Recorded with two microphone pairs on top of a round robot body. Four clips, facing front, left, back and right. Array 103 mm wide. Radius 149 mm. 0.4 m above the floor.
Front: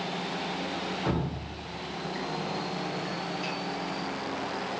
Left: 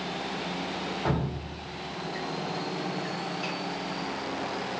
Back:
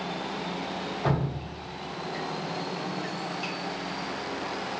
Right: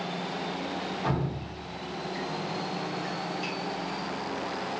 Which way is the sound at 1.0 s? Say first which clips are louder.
Left 1 dB, back 5 dB; 175° right.